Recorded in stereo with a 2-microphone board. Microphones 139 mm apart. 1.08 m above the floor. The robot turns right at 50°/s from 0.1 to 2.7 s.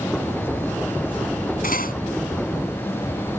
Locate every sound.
1.6 s cutlery clinking: 80° left; by 1.9 s 85° left